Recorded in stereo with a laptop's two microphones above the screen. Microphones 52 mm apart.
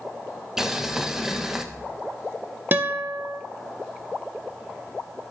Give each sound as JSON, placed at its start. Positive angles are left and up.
{"t": 0.6, "sound": "boiling", "side_deg": -10, "distance_m": 0.9}
{"t": 2.7, "sound": "a guitar", "side_deg": -35, "distance_m": 0.6}